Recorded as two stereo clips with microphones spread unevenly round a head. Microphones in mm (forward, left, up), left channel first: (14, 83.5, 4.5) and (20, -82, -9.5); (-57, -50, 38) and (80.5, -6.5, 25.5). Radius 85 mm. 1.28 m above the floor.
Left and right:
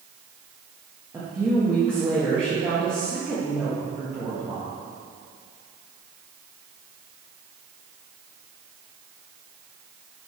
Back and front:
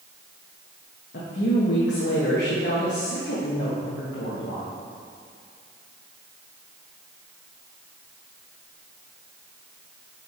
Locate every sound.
1.1 s a woman speaking: 165° right, 1.5 m